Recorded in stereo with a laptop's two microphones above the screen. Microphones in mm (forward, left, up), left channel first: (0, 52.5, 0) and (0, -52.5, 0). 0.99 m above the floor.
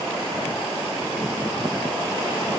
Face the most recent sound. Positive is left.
No sound to turn to.